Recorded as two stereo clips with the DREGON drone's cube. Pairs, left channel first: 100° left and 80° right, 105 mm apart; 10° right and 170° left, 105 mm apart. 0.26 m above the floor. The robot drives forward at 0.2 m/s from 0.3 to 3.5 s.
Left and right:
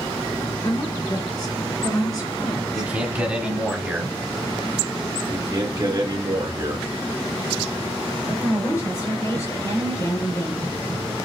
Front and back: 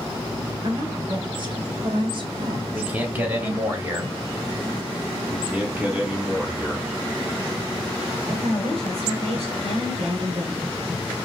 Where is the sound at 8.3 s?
155° left, 3 m.